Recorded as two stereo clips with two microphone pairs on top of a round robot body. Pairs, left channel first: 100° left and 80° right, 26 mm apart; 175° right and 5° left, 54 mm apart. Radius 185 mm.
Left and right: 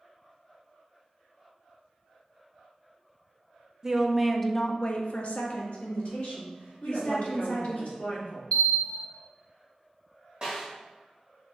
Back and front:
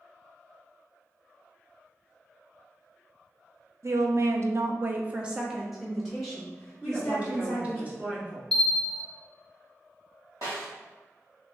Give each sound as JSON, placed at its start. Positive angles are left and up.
{"t": 3.8, "sound": "a woman speaking", "azimuth_deg": -25, "distance_m": 0.7}
{"t": 6.8, "sound": "a woman speaking", "azimuth_deg": 70, "distance_m": 1.3}
{"t": 8.5, "sound": "a bell", "azimuth_deg": 130, "distance_m": 0.9}
{"t": 10.4, "sound": "a snare drum", "azimuth_deg": -10, "distance_m": 0.6}